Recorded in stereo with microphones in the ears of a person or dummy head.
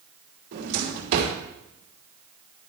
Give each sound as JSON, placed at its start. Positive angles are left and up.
{"t": 0.5, "sound": "a drawer", "side_deg": -60, "distance_m": 2.5}